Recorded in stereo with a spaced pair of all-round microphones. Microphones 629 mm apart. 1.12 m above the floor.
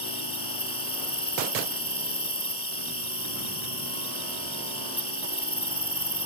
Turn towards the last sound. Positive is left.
turn(degrees=55)  # may be behind; listen again after turning